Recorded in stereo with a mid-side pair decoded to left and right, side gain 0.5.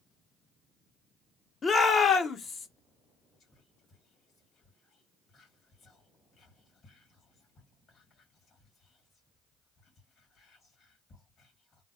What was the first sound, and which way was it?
A shout, 35° left.